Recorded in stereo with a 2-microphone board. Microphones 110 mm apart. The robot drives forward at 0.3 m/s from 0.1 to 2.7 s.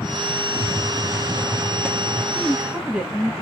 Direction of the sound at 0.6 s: 30° right (ahead or behind).